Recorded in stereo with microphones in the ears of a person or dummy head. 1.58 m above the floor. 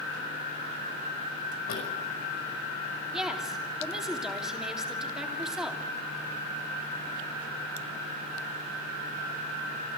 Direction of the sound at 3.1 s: Centre (ahead or behind).